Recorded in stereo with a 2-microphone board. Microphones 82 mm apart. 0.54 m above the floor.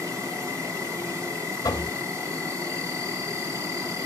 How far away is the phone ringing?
No phone ringing in this recording.